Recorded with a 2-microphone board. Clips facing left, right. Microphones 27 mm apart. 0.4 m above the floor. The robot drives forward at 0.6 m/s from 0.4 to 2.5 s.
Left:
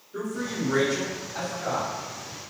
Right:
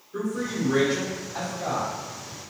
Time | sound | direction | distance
0.1 | a man speaking | 30° right (ahead or behind) | 1.9 m